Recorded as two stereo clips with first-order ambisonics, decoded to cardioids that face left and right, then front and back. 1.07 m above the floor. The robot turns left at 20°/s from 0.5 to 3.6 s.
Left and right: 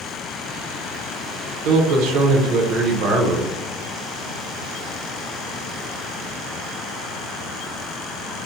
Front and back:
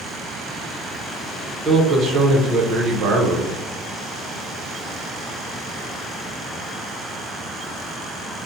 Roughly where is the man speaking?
Right.